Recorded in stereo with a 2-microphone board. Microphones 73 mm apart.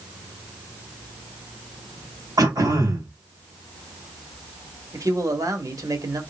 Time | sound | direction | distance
2.4 | throat clearing | 55° right (ahead or behind) | 2.5 m
4.9 | a man speaking | 50° right (ahead or behind) | 1.3 m